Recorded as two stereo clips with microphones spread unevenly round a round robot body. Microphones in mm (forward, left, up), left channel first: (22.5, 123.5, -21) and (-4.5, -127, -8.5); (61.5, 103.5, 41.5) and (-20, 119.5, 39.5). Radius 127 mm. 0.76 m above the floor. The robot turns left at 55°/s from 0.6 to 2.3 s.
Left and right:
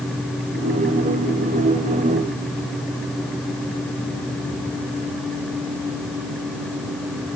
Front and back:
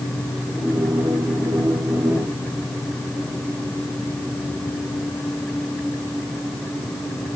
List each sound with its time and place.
Only background noise.